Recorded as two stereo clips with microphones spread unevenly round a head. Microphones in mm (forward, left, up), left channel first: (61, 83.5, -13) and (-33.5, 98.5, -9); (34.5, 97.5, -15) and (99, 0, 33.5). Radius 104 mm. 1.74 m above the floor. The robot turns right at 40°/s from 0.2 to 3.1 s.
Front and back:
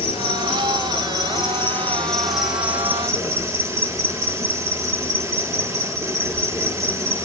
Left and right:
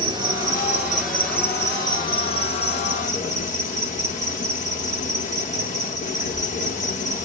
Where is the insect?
5° right, 4.5 m; by 7.3 s 115° left, 4.5 m.